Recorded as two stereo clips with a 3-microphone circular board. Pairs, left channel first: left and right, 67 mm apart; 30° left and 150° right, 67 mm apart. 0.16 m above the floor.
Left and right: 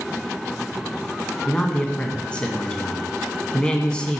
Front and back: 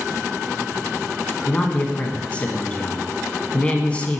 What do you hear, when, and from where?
1.5 s a man speaking: 50° left, 1.2 m